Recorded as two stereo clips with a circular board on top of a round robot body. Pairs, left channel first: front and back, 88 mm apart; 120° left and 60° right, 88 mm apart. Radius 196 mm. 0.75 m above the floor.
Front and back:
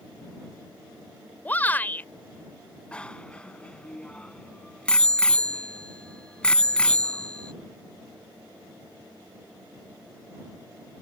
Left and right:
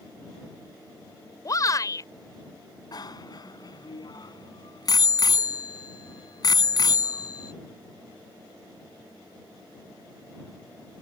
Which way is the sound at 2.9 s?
80° left.